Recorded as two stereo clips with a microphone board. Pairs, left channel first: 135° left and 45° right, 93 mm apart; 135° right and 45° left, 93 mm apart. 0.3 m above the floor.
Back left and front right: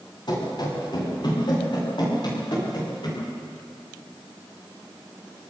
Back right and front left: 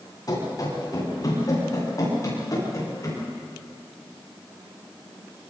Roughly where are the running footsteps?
Behind.